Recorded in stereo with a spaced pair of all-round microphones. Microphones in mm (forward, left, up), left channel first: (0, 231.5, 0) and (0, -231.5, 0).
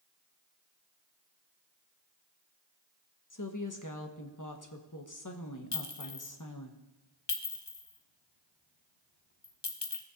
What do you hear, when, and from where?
3.3 s a woman speaking: 40° left (ahead or behind), 1.0 m
5.7 s a clink: 60° left (ahead or behind), 0.9 m